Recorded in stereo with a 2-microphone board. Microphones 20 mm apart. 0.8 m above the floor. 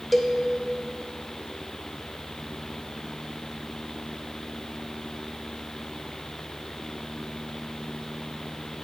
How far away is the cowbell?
About 0.9 m.